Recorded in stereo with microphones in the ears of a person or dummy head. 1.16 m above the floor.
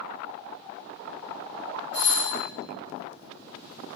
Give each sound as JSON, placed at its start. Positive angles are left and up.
{"t": 1.9, "sound": "a doorbell", "side_deg": -35, "distance_m": 1.9}